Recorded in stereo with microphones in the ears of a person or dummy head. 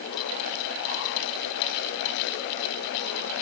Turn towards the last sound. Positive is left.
No sound to turn to.